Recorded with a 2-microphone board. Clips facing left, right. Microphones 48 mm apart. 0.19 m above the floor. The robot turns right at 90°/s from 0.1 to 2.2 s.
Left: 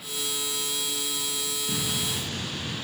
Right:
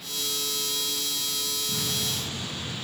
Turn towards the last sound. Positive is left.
turn(degrees=125)